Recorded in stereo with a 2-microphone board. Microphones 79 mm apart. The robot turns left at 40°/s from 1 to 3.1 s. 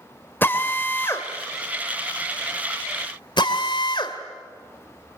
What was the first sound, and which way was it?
A drill, 25° left (ahead or behind).